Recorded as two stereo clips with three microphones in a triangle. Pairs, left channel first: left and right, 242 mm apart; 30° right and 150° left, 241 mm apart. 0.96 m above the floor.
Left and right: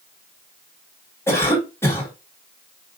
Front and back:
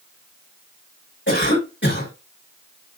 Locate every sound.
1.3 s a cough: 15° left, 3.5 m